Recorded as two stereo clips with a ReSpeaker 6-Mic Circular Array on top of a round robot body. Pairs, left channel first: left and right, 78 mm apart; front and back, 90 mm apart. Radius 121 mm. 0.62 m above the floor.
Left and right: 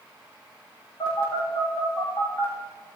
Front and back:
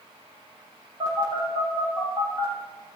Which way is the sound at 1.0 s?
130° left.